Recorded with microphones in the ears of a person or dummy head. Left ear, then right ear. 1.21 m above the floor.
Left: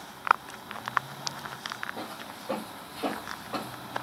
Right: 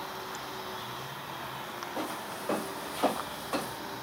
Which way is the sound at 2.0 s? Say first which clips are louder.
Right 3 dB; 70° right (ahead or behind).